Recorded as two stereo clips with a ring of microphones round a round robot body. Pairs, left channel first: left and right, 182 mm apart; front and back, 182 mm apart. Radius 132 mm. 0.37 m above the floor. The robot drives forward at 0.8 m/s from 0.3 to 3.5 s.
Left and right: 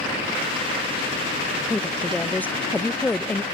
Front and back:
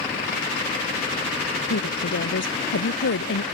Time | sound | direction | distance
1.7 | a woman speaking | 10° left | ?